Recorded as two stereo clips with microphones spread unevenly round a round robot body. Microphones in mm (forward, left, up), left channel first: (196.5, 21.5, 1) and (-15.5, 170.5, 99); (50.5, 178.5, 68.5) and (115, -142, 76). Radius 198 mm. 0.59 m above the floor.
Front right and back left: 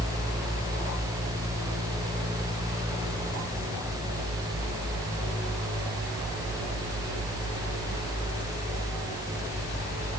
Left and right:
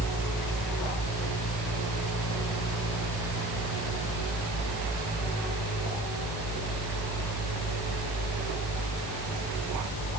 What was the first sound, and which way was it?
Only background noise.